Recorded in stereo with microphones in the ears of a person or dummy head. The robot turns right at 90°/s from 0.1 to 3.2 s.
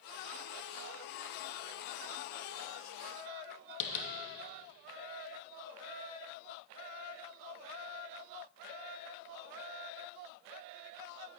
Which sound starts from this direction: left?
Tapping, at 3.8 s.